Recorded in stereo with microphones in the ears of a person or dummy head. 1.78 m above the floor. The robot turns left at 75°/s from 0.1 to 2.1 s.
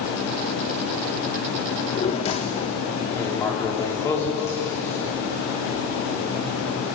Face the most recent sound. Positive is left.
turn(degrees=20)  # may be behind; listen again after turning